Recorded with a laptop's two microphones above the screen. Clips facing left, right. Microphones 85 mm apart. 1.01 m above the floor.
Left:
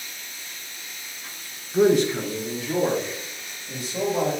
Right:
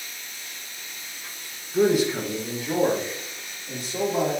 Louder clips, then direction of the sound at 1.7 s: Left 2 dB; 20° left (ahead or behind).